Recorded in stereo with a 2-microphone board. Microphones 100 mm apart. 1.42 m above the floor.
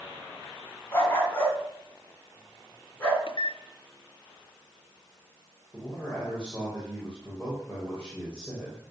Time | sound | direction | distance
0.9 | a dog barking | 25° left (ahead or behind) | 4 m
3.3 | a microwave | 60° left (ahead or behind) | 0.6 m
5.7 | a man speaking | 10° left (ahead or behind) | 6 m